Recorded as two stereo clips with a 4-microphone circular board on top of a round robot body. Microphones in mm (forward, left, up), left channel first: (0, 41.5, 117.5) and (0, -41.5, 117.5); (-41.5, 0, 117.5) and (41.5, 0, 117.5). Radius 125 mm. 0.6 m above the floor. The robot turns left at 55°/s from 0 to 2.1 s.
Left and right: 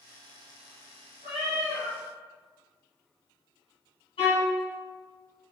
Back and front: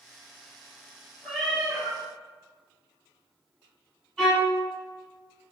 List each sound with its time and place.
1.2 s a cat meowing: 105° left, 0.5 m; by 2.0 s 65° left, 0.5 m
4.2 s a violin: 90° left, 1.2 m